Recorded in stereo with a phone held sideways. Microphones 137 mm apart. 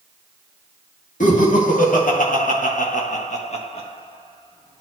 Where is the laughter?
70° left (ahead or behind), 2 m; by 4.8 s 25° left (ahead or behind), 1.8 m.